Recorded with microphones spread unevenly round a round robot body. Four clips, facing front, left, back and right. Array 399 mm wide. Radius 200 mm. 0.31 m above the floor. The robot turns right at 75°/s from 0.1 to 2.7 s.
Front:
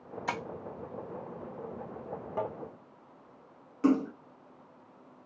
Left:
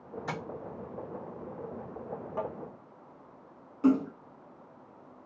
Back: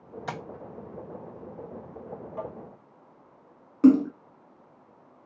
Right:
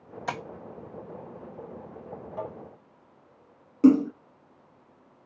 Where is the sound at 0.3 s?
130° right, 1.6 m; by 0.4 s 115° right, 1.6 m.